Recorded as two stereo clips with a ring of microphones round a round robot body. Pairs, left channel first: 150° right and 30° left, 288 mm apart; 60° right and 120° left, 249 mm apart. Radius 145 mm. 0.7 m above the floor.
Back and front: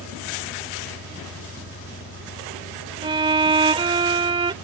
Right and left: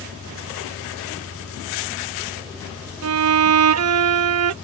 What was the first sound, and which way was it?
An engine running, 135° right.